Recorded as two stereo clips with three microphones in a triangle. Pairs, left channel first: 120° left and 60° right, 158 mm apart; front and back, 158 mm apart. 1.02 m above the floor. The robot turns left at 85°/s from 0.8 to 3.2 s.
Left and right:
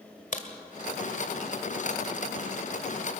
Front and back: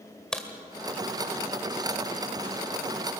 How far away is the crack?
About 1.9 m.